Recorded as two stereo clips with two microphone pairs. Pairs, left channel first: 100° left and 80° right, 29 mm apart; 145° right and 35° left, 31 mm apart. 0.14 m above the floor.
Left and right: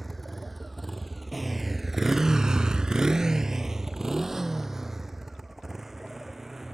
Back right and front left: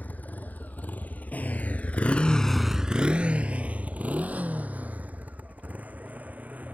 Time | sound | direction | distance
0.0 | a motorcycle | 170° right | ?